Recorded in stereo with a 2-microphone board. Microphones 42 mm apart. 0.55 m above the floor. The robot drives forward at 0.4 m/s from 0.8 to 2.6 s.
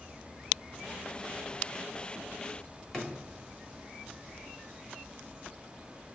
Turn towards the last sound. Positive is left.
turn(degrees=15)  # may be behind; listen again after turning